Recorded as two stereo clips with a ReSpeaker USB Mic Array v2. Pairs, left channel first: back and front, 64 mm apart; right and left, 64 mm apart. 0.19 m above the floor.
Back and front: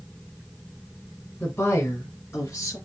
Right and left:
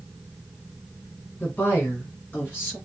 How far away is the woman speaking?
About 2 m.